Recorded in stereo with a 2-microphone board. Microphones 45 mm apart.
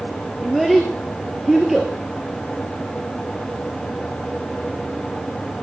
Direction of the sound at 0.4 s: 5° right (ahead or behind).